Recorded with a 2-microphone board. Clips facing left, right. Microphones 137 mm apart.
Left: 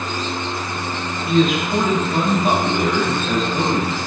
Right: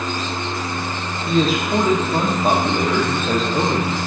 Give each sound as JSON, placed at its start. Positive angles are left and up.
{"t": 1.3, "sound": "a man speaking", "side_deg": -35, "distance_m": 0.6}